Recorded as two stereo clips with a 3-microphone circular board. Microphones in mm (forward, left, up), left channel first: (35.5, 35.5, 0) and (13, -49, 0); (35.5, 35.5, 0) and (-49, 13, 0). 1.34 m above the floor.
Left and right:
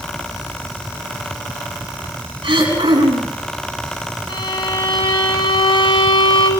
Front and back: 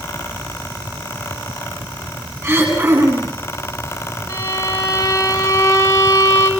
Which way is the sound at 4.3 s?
75° left.